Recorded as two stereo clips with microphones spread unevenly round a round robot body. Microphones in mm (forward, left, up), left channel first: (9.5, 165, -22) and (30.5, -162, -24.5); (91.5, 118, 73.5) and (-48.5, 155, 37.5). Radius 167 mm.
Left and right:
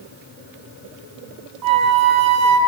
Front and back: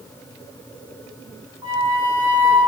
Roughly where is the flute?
Behind right.